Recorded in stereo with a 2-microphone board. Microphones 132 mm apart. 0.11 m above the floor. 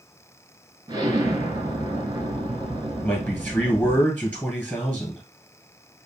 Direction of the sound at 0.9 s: 30° right (ahead or behind).